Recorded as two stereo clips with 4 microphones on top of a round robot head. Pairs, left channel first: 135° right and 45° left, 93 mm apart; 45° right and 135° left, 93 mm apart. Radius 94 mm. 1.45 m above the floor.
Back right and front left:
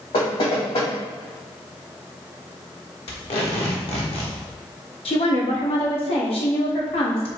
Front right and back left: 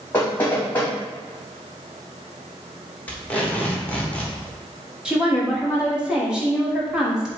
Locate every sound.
0.1 s knocking: 115° right, 2.5 m
3.1 s tape being pulled: 120° right, 1.3 m
5.0 s a woman speaking: 140° right, 1.6 m